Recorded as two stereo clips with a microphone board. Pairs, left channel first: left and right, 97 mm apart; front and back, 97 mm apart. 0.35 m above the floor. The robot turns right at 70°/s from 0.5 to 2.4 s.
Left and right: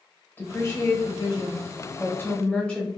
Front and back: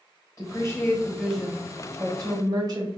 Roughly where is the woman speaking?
Ahead left.